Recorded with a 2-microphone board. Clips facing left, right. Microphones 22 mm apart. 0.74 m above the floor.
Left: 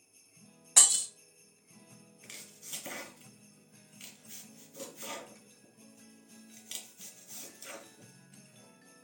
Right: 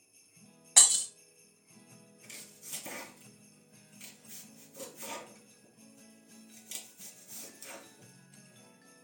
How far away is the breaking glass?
About 1.0 m.